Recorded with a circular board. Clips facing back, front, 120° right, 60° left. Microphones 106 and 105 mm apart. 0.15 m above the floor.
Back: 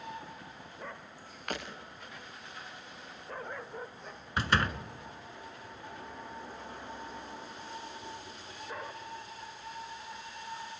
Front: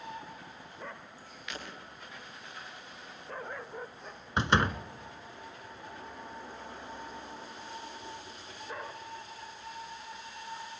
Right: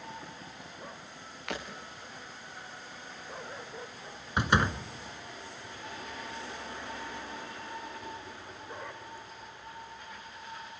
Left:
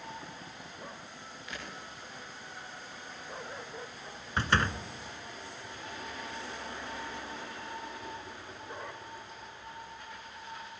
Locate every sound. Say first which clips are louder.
1.5 s breaking glass: back 5 dB, right 7 dB; 140° right, 6.5 m
4.4 s a door slam: front 3 dB, right 2 dB; 55° right, 1.2 m